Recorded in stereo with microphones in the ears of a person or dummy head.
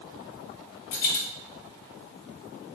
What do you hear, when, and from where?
0.9 s a dropped coin: 50° left (ahead or behind), 0.5 m